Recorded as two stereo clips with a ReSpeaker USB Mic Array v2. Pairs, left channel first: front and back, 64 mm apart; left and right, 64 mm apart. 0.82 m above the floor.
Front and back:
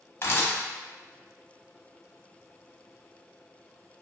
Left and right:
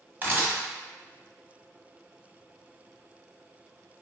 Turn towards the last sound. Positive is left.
turn(degrees=-40)